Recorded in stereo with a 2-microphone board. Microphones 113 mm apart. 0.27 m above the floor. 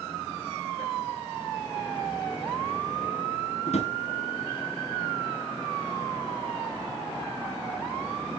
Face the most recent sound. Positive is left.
turn(degrees=80)